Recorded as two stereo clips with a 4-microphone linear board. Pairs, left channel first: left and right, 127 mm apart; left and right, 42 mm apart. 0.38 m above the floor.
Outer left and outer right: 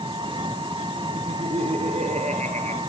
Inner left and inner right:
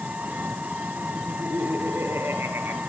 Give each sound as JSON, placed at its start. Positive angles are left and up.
{"t": 0.0, "sound": "an engine running", "side_deg": -40, "distance_m": 1.9}
{"t": 1.1, "sound": "laughter", "side_deg": -65, "distance_m": 5.0}